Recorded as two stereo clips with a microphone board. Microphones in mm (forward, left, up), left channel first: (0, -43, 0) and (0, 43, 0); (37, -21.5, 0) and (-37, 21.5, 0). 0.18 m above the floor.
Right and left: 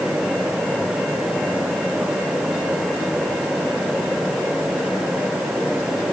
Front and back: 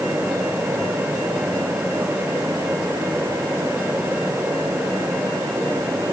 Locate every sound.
Only background noise.